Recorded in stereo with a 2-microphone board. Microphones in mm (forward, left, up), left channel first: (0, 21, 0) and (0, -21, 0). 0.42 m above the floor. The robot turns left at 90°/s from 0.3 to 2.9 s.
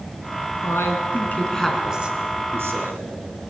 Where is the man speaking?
100° left, 3.5 m; by 3.1 s 105° right, 3.5 m.